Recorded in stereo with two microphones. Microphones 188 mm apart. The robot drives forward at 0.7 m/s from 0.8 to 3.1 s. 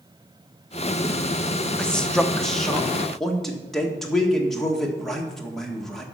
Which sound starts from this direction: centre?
A man speaking, at 1.8 s.